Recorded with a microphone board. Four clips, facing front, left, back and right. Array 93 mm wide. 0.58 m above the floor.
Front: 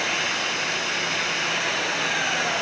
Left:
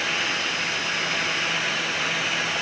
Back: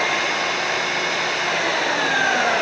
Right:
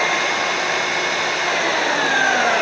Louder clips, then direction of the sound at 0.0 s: Right 9 dB, back 6 dB; 115° right.